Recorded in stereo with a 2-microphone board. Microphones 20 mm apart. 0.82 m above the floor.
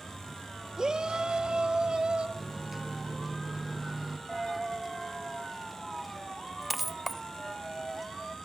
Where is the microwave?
15° right (ahead or behind), 0.7 m.